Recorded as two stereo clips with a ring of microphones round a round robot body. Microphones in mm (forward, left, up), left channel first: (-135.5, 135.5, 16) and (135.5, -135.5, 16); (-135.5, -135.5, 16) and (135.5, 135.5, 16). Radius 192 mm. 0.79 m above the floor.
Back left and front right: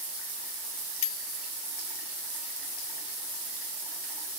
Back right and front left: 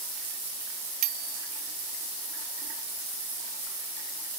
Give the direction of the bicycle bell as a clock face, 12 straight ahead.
9 o'clock.